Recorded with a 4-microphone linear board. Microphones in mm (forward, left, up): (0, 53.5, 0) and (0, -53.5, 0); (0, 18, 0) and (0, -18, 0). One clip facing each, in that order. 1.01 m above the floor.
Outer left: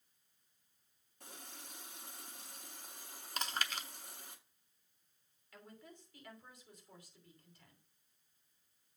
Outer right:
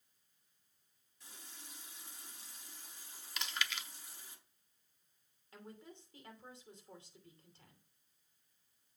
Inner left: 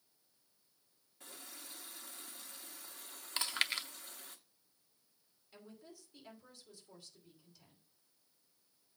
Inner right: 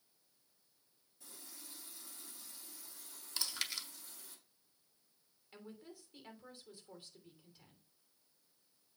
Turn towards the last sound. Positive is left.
turn(degrees=-30)  # may be behind; listen again after turning